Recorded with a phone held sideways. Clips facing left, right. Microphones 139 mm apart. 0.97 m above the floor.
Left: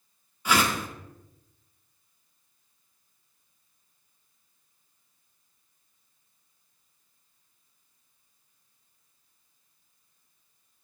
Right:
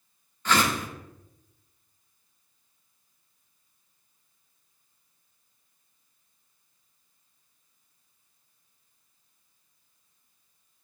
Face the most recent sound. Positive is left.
turn(degrees=10)  # may be behind; listen again after turning